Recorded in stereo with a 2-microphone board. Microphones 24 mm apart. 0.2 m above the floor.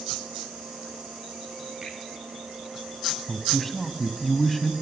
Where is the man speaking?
5° left (ahead or behind), 1.1 m.